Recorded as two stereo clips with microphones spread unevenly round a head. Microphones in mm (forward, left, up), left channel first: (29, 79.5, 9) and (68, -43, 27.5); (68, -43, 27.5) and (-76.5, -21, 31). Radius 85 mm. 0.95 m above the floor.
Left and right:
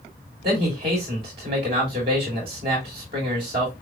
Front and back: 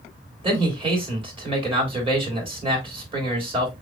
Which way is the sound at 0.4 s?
135° right.